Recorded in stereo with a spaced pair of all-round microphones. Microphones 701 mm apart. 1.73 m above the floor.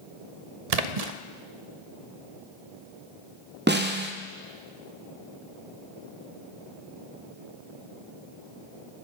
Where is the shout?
No shout in this recording.